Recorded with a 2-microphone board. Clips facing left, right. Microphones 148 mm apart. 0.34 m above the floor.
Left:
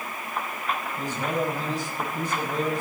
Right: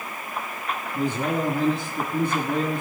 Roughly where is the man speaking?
Right.